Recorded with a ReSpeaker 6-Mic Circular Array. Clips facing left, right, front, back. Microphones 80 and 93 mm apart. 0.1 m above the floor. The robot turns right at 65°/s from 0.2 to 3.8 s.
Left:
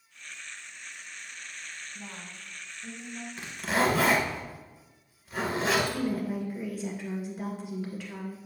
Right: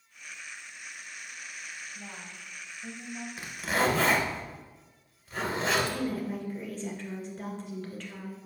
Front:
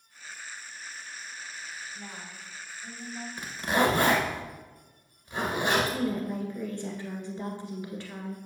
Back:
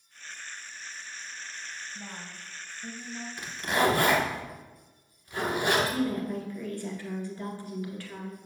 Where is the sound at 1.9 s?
120° left, 2.5 m; by 3.3 s 155° right, 2.5 m.